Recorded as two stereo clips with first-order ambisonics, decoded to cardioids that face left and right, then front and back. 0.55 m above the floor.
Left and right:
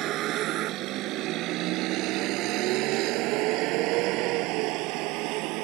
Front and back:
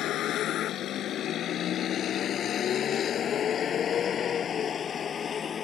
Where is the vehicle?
50° right; by 5.7 s 65° right.